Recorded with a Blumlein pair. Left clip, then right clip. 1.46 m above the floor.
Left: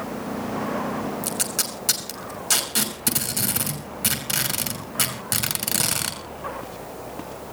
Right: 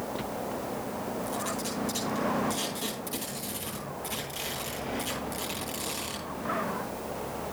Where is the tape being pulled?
50° left, 6 m.